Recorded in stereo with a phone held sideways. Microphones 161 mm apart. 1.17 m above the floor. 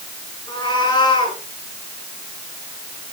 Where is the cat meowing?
25° left (ahead or behind), 8.5 m.